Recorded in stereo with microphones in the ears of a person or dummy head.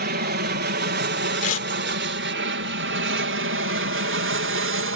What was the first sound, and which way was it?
An aircraft, 50° right (ahead or behind).